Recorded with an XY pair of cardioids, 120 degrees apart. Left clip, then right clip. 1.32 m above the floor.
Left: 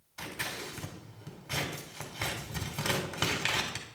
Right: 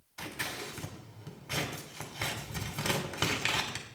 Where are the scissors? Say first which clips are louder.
Even; 5° right, 3 m.